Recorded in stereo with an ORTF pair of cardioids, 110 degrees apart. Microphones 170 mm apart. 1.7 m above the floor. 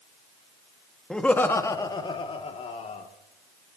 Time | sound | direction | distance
1.1 | laughter | 5° left | 1.6 m